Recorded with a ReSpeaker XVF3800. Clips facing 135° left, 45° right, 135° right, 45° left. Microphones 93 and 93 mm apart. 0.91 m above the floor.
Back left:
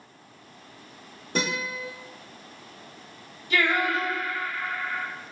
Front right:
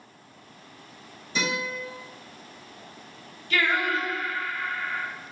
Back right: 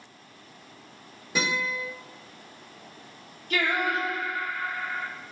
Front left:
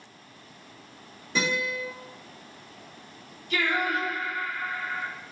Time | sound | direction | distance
1.4 | a guitar | 150° left | 1.3 m
3.5 | singing | 155° right | 1.0 m